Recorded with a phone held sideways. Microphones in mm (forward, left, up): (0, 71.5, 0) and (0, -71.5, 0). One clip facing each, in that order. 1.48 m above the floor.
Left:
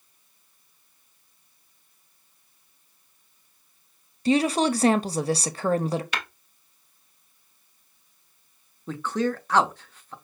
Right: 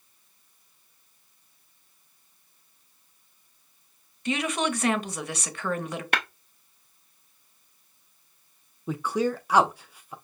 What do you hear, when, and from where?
4.2 s a woman speaking: 35° left (ahead or behind), 0.5 m
6.1 s tapping: 60° right (ahead or behind), 0.7 m
8.9 s a man speaking: 10° right (ahead or behind), 0.6 m